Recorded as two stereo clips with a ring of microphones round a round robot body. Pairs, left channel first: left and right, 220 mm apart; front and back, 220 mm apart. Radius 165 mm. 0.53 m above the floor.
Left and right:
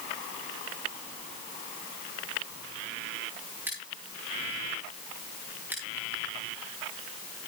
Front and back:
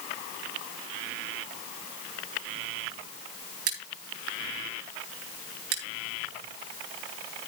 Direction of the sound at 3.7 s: 175° right.